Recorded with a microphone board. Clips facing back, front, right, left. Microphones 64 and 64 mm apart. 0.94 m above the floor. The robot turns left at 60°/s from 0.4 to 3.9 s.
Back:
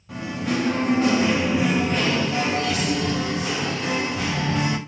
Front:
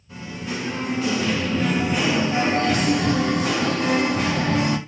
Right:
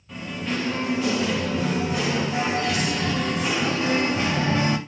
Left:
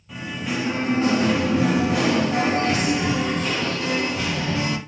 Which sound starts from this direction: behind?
Singing, at 0.1 s.